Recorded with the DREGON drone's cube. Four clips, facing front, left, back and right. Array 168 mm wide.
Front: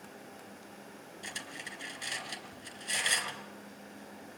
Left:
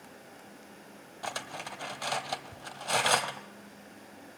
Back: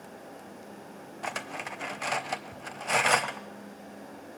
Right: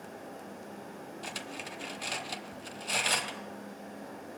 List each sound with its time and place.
1.2 s cutlery clinking: 150° left, 1.1 m